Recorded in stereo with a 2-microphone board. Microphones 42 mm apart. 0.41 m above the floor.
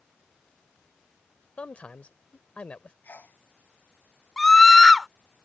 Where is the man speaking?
30° left (ahead or behind).